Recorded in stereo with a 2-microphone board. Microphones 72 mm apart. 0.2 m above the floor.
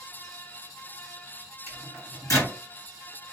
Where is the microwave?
45° left (ahead or behind), 2.5 m.